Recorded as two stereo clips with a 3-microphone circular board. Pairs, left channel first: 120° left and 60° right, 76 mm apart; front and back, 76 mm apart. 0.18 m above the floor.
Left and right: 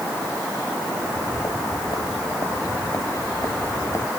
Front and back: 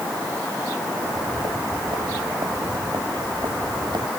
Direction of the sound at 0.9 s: 155° left.